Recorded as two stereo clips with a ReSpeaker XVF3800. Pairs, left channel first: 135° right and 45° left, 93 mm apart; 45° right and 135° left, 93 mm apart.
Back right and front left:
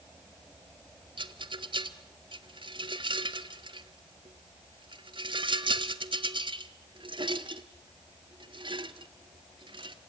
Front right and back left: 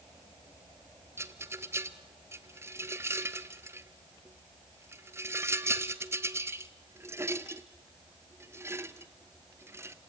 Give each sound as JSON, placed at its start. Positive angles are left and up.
{"t": 1.2, "sound": "a rattle", "azimuth_deg": 70, "distance_m": 0.9}